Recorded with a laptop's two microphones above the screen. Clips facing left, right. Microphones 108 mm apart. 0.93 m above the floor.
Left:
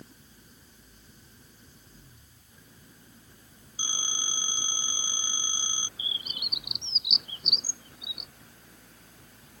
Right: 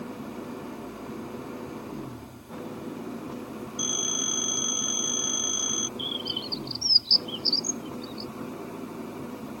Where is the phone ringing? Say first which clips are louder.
Right 3 dB; 20° left (ahead or behind).